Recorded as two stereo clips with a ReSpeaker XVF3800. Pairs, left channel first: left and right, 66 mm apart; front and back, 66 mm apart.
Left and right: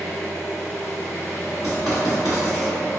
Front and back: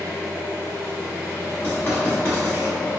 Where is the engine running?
35° left, 1.3 m.